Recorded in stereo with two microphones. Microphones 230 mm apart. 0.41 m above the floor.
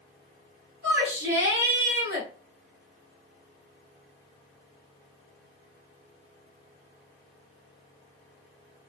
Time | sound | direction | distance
0.8 | a shout | 45° right (ahead or behind) | 1.7 m